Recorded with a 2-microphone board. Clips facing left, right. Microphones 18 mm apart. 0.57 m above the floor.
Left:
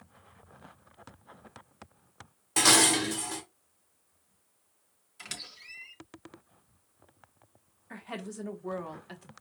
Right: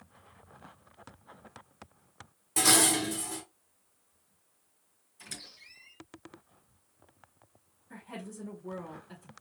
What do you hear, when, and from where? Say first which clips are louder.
2.6 s dishes clattering: left 3 dB; 30° left (ahead or behind), 0.8 m
5.2 s a squeak: left 4 dB; 80° left, 1.5 m
7.9 s a woman speaking: left 4 dB; 50° left (ahead or behind), 1.0 m